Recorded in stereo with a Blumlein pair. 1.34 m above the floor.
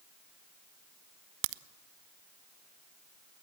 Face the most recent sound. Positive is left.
turn(degrees=-50)